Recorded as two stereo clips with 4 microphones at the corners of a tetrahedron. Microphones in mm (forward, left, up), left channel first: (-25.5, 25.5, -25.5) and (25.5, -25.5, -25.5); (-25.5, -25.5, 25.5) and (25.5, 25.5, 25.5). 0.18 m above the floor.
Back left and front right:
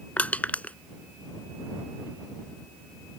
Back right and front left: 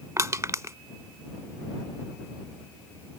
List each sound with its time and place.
0.2 s crushing: 75° left